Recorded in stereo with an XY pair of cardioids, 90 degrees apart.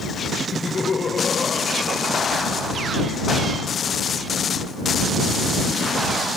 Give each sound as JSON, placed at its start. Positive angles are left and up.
{"t": 0.5, "sound": "laughter", "azimuth_deg": 40}